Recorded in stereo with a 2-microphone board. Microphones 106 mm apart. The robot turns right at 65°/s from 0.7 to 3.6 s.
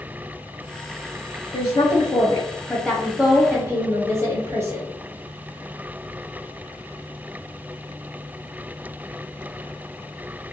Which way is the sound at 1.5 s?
90° left.